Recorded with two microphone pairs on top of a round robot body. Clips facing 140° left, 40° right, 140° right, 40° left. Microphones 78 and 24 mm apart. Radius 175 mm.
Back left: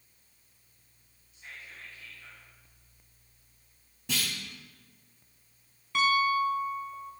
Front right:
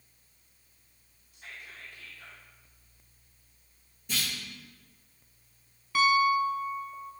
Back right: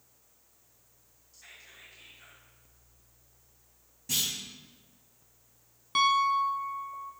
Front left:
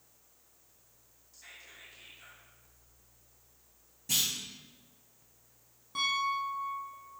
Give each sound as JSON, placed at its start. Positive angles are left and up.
{"t": 1.3, "sound": "whispering", "azimuth_deg": -60, "distance_m": 1.4}
{"t": 4.1, "sound": "a clunk", "azimuth_deg": 130, "distance_m": 0.6}
{"t": 6.0, "sound": "a piano", "azimuth_deg": -125, "distance_m": 0.6}